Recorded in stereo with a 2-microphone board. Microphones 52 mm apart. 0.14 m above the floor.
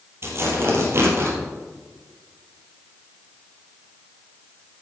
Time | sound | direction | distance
0.2 | tearing paper | 45° right (ahead or behind) | 3 m